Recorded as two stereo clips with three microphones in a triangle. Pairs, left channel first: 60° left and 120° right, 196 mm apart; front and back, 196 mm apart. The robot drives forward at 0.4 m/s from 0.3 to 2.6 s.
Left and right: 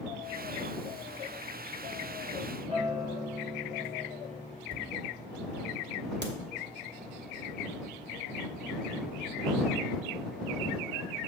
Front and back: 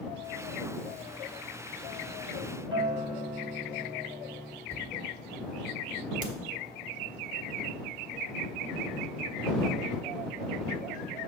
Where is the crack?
140° right, 1.1 m.